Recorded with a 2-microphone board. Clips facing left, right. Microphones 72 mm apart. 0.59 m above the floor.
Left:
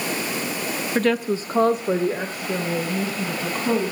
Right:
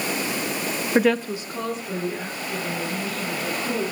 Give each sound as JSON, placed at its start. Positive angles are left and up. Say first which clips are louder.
{"t": 0.9, "sound": "a woman speaking", "louder": "right 1 dB", "side_deg": -20, "distance_m": 0.6}